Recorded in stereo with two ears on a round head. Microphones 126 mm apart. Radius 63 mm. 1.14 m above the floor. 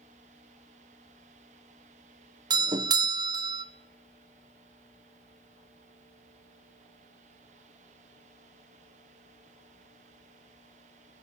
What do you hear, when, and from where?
2.5 s a doorbell: 30° right (ahead or behind), 0.8 m